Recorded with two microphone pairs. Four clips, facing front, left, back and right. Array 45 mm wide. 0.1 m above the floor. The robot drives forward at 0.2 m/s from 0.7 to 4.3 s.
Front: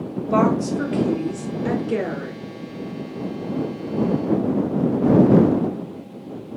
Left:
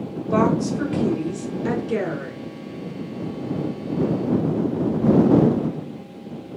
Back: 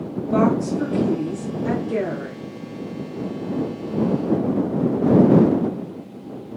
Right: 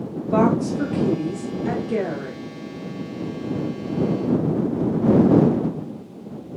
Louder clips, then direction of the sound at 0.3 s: Right 1 dB, even; 50° left.